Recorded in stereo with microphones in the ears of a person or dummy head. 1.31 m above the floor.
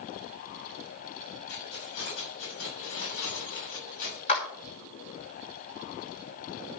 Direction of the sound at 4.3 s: 35° left (ahead or behind).